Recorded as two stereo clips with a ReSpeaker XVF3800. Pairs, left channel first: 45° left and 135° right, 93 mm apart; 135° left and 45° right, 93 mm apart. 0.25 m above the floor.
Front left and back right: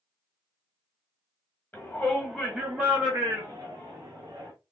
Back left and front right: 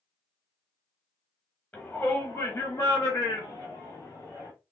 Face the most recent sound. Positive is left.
turn(degrees=-170)